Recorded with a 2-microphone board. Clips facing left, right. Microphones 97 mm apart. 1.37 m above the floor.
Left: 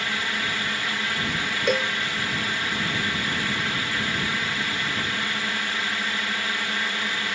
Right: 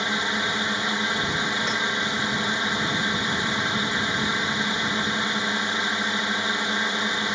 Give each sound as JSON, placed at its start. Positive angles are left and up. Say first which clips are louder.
{"t": 0.0, "sound": "a drone", "louder": "right 3 dB", "side_deg": -20}
{"t": 1.7, "sound": "a cowbell", "louder": "left 4 dB", "side_deg": 60}